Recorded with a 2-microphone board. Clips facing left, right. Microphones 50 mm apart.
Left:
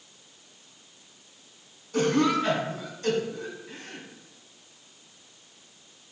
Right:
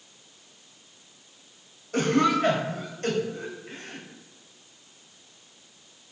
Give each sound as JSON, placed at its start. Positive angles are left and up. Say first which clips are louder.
{"t": 1.9, "sound": "a cough", "louder": "right 1 dB", "side_deg": -65, "distance_m": 2.5}